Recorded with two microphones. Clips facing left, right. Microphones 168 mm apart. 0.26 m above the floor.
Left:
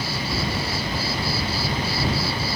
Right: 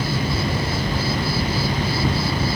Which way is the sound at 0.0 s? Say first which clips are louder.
Right 4 dB; 50° right (ahead or behind).